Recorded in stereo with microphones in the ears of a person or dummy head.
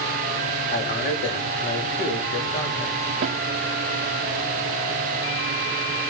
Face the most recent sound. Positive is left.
turn(degrees=-30)  # may be behind; listen again after turning